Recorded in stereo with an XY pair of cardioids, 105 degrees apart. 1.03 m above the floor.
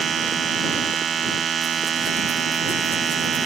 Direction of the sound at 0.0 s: 45° right.